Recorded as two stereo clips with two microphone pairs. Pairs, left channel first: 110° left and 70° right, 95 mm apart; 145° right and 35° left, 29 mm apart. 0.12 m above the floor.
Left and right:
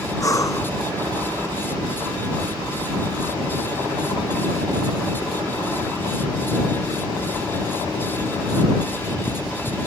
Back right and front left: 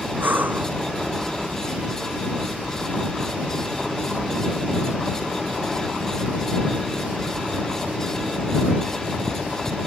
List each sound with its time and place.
0.2 s breathing: 55° left